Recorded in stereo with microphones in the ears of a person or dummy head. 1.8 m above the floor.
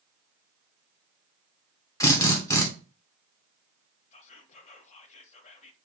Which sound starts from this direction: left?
Whispering, at 4.1 s.